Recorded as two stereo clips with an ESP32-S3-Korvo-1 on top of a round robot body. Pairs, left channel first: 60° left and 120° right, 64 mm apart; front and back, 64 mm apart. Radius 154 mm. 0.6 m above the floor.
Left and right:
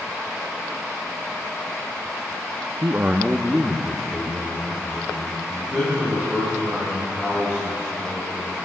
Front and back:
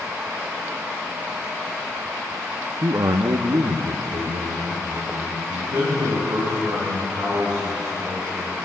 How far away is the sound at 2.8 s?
About 0.8 m.